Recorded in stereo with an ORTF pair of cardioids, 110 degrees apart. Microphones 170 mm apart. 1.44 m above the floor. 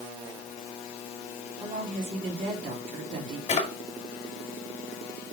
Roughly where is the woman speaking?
Ahead right.